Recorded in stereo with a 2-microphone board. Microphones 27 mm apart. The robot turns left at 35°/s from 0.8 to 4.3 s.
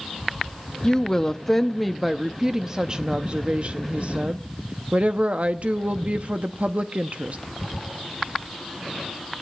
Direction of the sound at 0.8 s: 35° left.